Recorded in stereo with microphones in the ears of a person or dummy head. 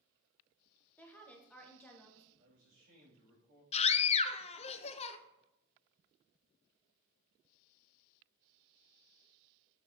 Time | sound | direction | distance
1.0 | a woman speaking | 10° left (ahead or behind) | 1.3 m
2.4 | a man speaking | 80° right | 3 m
3.7 | a scream | 30° left (ahead or behind) | 0.7 m